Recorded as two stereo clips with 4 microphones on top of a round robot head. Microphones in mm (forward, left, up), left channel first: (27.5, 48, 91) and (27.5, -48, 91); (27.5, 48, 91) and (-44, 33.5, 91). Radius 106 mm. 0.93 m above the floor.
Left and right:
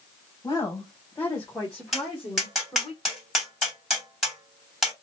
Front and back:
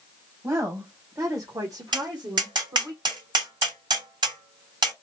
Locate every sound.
0.4 s a woman speaking: 140° left, 1.4 m; by 2.9 s 165° right, 1.8 m
1.9 s tapping: straight behind, 2.5 m